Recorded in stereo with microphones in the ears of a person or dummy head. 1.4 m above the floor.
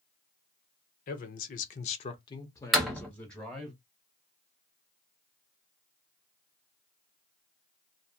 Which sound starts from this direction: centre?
A door slam, at 2.7 s.